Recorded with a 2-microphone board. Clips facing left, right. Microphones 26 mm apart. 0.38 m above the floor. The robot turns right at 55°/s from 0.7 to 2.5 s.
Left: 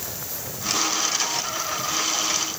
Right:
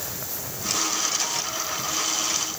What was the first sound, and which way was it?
Only background noise.